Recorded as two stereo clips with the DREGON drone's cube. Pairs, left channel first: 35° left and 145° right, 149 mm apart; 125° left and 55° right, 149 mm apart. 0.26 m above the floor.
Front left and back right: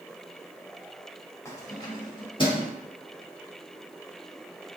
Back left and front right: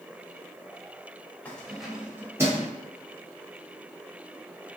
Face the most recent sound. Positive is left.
turn(degrees=0)